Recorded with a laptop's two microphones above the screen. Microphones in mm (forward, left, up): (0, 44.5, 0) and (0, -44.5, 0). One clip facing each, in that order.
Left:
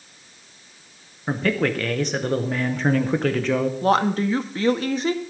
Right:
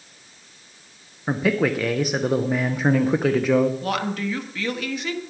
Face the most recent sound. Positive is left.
turn(degrees=35)  # may be behind; listen again after turning